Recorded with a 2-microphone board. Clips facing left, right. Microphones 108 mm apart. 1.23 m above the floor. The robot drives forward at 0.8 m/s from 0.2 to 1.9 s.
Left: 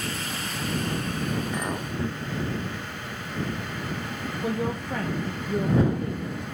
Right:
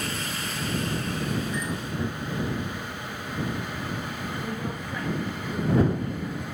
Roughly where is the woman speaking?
Left.